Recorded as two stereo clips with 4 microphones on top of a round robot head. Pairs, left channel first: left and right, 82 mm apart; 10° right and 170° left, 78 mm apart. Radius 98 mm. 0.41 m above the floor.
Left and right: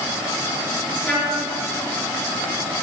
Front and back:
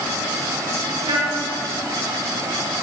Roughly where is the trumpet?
Behind.